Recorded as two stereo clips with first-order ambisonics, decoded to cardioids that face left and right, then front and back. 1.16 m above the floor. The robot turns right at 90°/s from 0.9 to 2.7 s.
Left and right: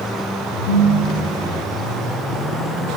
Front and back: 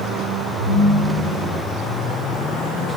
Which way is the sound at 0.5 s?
65° left.